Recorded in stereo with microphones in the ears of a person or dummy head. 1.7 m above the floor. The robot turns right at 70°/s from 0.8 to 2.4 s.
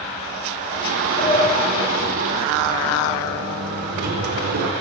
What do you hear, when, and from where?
1.2 s a sliding door: 155° left, 4.5 m; by 4.7 s 120° right, 4.5 m